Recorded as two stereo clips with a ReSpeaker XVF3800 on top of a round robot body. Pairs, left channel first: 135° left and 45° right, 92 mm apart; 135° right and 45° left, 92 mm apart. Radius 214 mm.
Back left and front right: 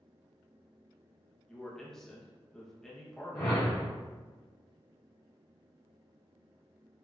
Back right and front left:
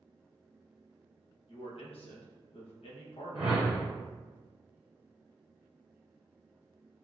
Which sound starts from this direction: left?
A whoosh, at 3.4 s.